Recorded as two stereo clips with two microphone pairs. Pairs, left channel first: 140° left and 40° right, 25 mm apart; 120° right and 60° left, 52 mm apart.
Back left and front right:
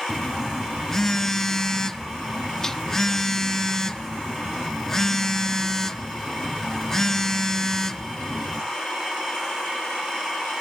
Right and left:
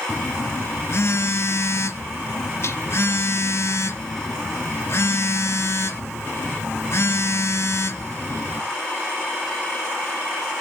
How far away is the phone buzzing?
About 0.6 m.